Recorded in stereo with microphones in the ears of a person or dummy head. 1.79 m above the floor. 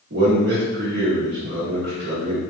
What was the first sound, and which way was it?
A man speaking, 50° right (ahead or behind).